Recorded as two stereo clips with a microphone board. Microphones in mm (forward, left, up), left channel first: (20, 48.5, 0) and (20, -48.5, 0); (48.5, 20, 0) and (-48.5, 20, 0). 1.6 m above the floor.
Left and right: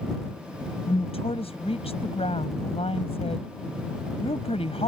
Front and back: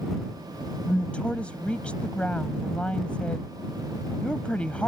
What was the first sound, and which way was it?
A woman speaking, 80° left.